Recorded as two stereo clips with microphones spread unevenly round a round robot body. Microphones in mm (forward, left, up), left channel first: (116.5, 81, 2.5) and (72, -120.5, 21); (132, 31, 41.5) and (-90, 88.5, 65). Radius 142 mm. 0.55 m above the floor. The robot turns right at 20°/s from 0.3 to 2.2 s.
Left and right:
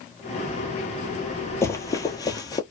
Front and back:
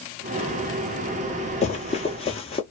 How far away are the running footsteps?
About 0.5 m.